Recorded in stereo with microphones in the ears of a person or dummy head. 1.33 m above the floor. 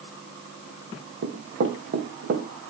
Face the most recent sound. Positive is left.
turn(degrees=-55)  # may be behind; listen again after turning